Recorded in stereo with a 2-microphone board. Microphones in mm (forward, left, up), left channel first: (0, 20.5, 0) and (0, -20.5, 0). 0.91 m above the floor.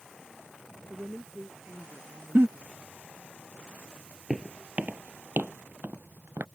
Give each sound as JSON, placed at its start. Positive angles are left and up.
{"t": 0.9, "sound": "a woman speaking", "side_deg": -50}
{"t": 2.4, "sound": "a giggle", "side_deg": -60}
{"t": 4.3, "sound": "footsteps", "side_deg": -25}